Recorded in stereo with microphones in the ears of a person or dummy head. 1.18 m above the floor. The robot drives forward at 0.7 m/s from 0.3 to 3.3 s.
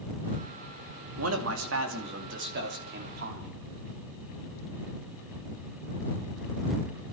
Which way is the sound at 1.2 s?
75° right (ahead or behind).